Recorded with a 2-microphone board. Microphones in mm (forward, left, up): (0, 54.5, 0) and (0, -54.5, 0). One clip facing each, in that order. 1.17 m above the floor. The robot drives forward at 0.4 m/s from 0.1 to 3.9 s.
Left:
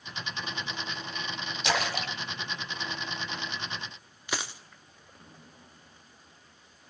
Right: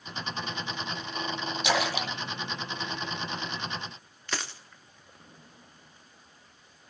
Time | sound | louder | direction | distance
1.6 | a splash | right 1 dB | 5° right (ahead or behind) | 1.7 m
4.3 | a dropped coin | left 1 dB | 10° left (ahead or behind) | 0.7 m